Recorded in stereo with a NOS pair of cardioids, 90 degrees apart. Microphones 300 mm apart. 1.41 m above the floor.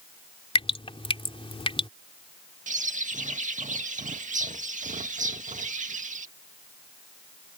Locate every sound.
0.6 s dripping: 20° left
2.7 s a bird: 25° right